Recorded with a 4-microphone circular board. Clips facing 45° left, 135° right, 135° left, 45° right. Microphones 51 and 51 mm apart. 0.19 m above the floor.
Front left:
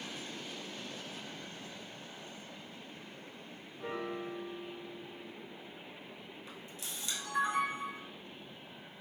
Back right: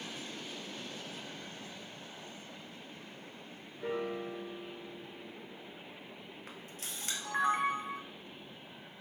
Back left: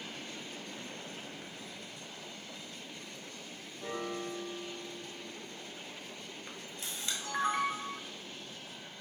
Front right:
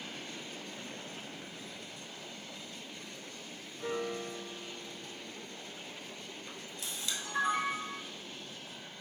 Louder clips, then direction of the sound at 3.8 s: Back right 3 dB, front right 2 dB; 35° right.